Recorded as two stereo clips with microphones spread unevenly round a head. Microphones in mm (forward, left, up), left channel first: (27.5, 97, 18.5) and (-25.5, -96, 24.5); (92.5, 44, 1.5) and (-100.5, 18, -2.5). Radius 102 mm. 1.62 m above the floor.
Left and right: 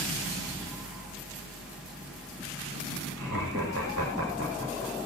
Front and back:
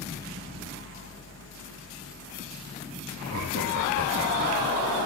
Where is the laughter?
140° right, 6 m.